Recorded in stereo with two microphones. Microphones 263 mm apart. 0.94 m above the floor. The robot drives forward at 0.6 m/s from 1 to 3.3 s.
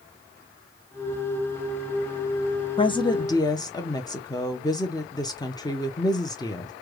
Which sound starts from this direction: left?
A woman speaking, at 2.8 s.